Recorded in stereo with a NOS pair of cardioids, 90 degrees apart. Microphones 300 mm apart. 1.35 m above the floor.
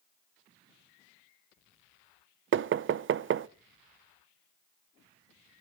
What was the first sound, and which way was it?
Knocking, 45° right.